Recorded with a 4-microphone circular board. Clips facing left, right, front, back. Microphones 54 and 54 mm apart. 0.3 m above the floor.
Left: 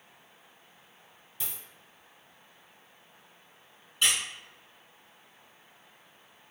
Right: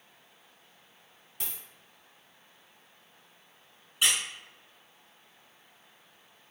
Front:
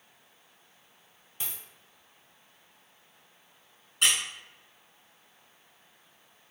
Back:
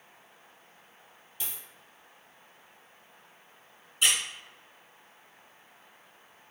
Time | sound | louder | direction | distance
1.4 | a dropped coin | even, even | 50° right | 1.9 m
4.0 | a squeak | even, even | 10° right | 1.9 m